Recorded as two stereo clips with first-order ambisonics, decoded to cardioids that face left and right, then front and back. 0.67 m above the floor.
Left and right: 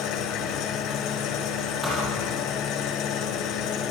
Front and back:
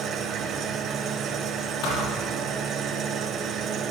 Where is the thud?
15° right, 7.5 m.